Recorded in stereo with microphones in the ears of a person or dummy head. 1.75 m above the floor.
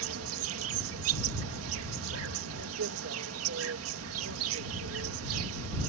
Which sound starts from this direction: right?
An insect, at 0.0 s.